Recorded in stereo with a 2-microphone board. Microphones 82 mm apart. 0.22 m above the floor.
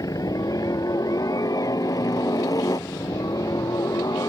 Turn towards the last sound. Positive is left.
turn(degrees=50)  # may be behind; listen again after turning